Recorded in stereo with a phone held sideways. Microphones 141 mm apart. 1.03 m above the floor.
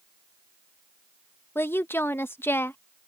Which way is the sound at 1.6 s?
15° left (ahead or behind).